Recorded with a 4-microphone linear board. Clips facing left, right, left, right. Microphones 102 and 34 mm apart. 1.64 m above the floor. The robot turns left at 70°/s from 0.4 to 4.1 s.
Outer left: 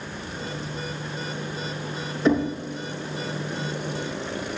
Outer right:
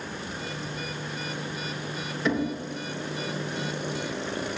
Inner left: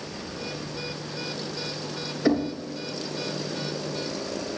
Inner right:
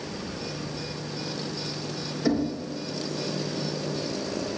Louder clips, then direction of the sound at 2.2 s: Outer left 6 dB, inner left 2 dB; 30° left (ahead or behind).